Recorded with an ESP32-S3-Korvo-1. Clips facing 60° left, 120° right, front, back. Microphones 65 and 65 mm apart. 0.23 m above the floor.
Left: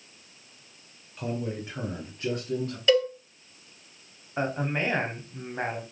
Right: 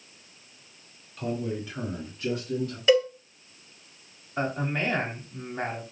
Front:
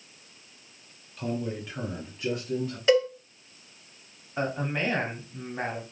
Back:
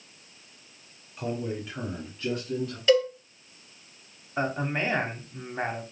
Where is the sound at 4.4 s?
115° left, 1.0 m.